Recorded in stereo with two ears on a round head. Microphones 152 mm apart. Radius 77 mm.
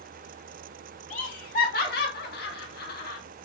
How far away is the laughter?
About 2.0 m.